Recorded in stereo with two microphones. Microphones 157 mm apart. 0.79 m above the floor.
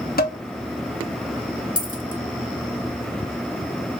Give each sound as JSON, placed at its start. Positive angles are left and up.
{"t": 0.2, "sound": "dishes clattering", "side_deg": 70, "distance_m": 0.6}
{"t": 1.8, "sound": "a dropped coin", "side_deg": 55, "distance_m": 0.5}